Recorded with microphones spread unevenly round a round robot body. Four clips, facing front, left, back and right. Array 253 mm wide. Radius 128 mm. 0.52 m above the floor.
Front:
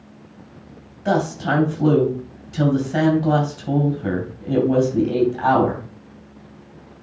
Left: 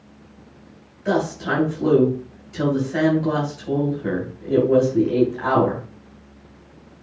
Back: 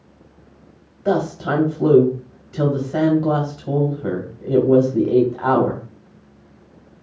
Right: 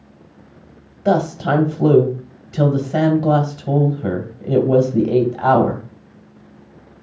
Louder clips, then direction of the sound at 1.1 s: Right 5 dB, even; 95° right.